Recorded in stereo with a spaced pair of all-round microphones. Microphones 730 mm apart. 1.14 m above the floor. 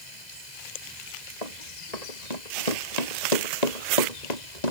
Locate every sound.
0.0 s running water: 70° left (ahead or behind)
1.4 s running footsteps: 60° left (ahead or behind); by 4.7 s 65° left (ahead or behind)